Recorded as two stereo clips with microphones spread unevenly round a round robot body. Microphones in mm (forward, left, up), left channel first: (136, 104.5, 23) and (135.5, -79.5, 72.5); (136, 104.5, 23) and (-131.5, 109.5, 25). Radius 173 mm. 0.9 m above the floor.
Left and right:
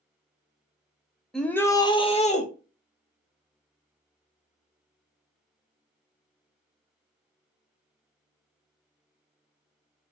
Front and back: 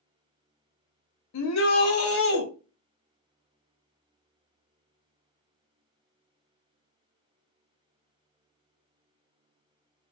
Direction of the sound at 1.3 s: 5° left.